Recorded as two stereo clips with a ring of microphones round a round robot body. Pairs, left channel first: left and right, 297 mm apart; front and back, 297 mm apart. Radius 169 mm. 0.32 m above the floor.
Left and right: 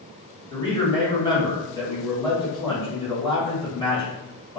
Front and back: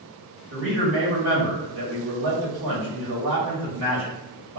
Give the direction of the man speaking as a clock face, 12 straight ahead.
7 o'clock.